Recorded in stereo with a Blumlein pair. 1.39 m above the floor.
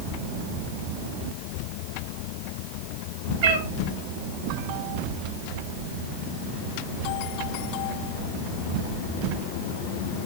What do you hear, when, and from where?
3.4 s a cat meowing: 45° right, 2.5 m